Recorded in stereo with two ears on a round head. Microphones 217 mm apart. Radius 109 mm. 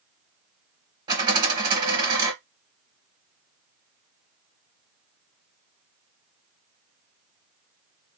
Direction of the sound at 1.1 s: 20° right (ahead or behind).